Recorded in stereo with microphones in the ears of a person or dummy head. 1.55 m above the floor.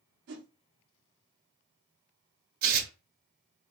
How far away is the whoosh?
About 0.7 m.